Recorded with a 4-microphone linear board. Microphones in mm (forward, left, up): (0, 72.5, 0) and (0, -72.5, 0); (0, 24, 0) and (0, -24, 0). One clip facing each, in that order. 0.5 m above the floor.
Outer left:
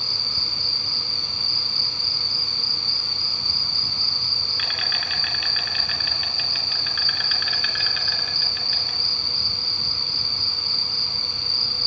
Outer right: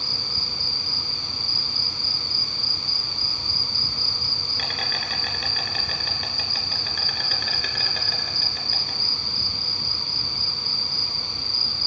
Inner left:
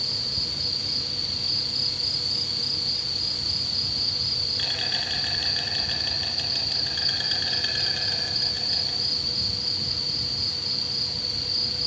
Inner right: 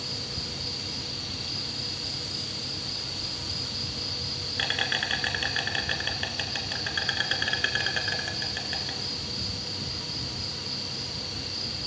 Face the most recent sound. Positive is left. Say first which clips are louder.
# outer right 1 dB, inner left 3 dB
turn(degrees=-40)  # may be behind; listen again after turning